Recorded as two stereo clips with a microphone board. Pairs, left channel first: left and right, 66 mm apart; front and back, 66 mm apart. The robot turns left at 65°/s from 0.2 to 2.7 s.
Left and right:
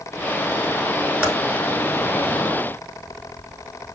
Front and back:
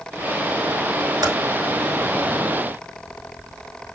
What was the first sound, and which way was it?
Typing on a keyboard, 155° right.